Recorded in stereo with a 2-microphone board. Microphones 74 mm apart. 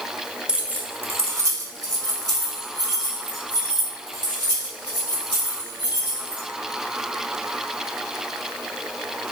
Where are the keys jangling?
10° right (ahead or behind), 0.7 m; by 6.4 s 70° right (ahead or behind), 4 m.